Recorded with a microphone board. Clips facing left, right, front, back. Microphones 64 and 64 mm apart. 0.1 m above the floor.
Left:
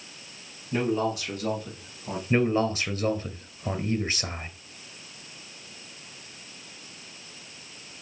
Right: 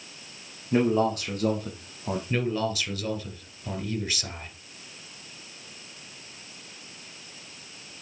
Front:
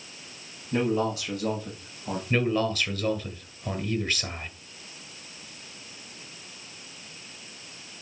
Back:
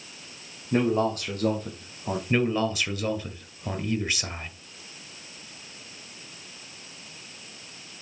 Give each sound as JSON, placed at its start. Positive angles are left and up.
{"t": 0.7, "sound": "a man speaking", "azimuth_deg": -140, "distance_m": 4.0}
{"t": 2.3, "sound": "a man speaking", "azimuth_deg": 110, "distance_m": 1.6}